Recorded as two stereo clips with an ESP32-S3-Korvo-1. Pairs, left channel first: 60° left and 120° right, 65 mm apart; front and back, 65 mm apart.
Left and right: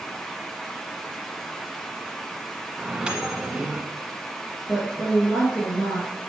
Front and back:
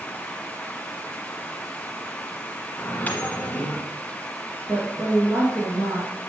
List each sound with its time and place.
2.8 s a microwave: 45° right, 1.1 m
4.7 s a woman speaking: 125° left, 2 m